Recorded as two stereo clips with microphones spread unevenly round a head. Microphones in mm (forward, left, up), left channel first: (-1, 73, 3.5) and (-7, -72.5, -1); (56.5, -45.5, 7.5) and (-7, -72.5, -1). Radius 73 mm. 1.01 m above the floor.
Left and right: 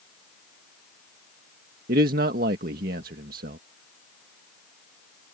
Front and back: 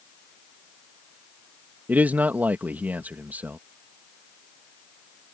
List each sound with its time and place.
1.9 s a man speaking: 95° right